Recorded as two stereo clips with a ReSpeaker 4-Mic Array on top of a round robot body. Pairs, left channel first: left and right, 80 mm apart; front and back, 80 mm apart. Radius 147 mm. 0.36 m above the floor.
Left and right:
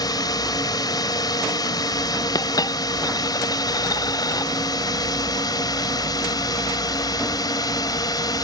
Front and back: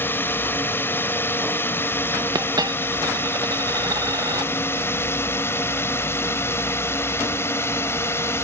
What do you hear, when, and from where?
0.0 s a drone: 60° left
2.4 s a dropped coin: 135° left